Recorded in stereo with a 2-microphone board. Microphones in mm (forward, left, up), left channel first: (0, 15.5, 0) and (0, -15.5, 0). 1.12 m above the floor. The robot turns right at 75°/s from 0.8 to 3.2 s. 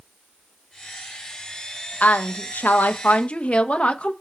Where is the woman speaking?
50° left, 0.8 m; by 4.1 s 140° left, 0.8 m.